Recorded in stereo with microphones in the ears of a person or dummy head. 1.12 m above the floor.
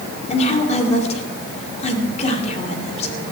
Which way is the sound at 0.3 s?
40° left (ahead or behind).